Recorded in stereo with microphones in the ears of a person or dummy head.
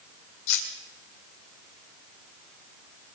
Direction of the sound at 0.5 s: 80° left.